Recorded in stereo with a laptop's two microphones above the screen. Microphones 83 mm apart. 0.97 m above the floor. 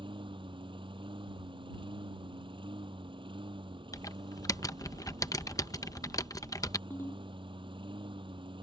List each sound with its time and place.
0.0 s a lawn mower: 85° right
3.9 s typing on a keyboard: 45° left (ahead or behind)
6.9 s a ringtone: 30° left (ahead or behind)